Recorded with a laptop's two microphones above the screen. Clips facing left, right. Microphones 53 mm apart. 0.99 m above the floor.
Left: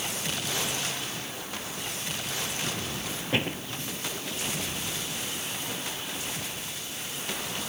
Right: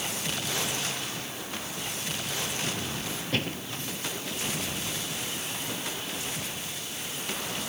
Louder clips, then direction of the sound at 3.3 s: Left 3 dB; 20° left (ahead or behind).